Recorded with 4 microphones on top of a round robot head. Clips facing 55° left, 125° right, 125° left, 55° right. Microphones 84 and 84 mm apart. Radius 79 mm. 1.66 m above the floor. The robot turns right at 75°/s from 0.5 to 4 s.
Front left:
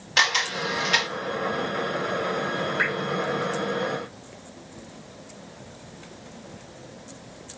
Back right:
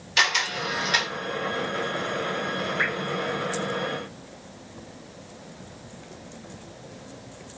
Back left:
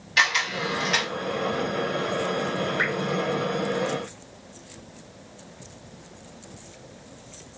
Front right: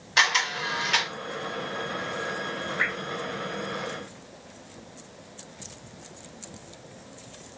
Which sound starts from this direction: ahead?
A camera shutter, at 0.2 s.